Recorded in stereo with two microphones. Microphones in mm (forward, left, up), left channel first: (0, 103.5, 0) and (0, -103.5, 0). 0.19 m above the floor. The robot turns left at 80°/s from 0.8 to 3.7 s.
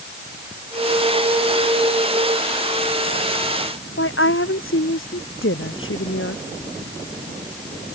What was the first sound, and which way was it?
A woman speaking, 80° left.